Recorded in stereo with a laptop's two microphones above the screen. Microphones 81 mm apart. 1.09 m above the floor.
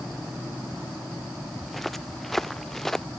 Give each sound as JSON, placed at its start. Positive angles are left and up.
{"t": 1.6, "sound": "footsteps", "side_deg": 0}